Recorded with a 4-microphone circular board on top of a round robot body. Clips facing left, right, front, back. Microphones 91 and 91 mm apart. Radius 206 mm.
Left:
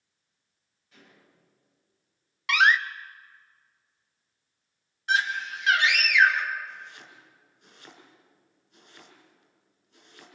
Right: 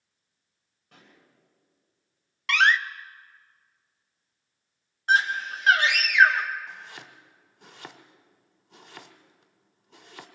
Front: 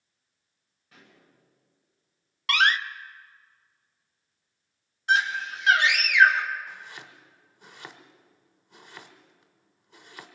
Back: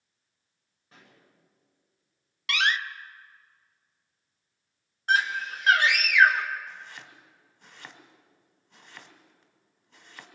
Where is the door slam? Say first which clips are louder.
Even, front 4 dB; 10° left, 0.9 m.